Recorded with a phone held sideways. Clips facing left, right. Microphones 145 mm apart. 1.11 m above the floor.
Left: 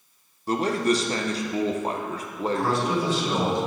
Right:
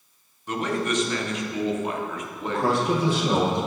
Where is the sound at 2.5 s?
60° right (ahead or behind), 1.0 m.